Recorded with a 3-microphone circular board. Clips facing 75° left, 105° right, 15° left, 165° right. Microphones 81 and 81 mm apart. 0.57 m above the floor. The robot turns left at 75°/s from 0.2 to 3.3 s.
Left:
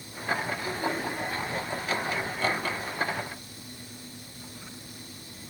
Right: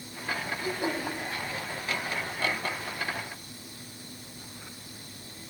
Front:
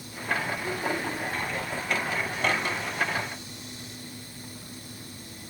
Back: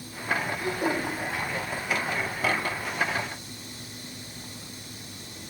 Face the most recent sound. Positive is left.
turn(degrees=-5)